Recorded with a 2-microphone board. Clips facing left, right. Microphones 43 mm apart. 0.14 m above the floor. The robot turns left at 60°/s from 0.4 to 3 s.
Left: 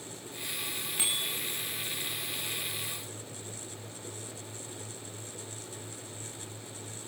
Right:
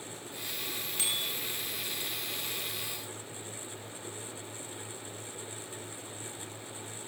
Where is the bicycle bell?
15° left (ahead or behind), 7.5 m; by 1.3 s 35° left (ahead or behind), 7.5 m.